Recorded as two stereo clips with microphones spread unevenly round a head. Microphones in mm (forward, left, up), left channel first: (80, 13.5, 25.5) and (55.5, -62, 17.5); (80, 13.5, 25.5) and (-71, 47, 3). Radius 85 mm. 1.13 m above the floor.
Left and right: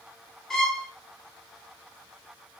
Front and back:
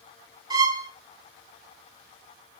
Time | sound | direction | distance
0.5 | a violin | 125° left | 0.6 m